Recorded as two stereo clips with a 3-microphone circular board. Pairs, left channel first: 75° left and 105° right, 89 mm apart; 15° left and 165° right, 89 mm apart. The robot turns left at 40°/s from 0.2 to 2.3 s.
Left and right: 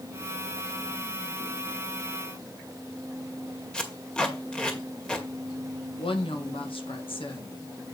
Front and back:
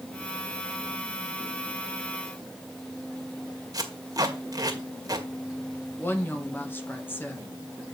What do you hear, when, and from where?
3.7 s tape being pulled: 155° left, 2 m
6.0 s a woman speaking: 85° left, 1.8 m